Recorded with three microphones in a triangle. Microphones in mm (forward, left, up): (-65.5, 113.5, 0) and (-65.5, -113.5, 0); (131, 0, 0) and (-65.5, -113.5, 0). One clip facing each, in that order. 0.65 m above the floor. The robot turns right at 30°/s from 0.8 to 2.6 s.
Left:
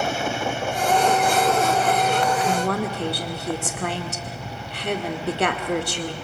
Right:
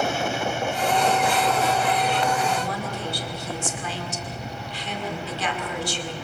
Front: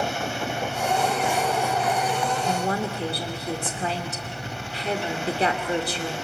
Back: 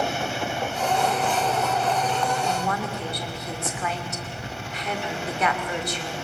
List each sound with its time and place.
2.4 s a woman speaking: 80° left, 2 m; by 6.1 s 85° left, 2 m